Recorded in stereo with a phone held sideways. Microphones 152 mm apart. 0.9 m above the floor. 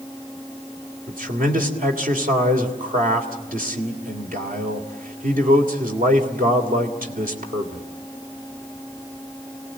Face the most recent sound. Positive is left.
turn(degrees=-65)  # may be behind; listen again after turning